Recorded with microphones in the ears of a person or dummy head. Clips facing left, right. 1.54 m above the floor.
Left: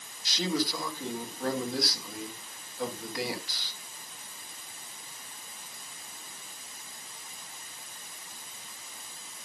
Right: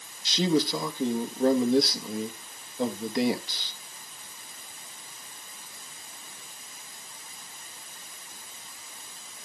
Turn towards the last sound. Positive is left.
turn(degrees=-20)  # may be behind; listen again after turning